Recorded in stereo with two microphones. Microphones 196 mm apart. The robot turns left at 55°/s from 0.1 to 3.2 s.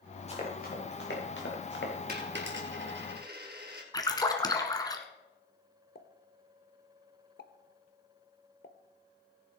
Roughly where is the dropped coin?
Right.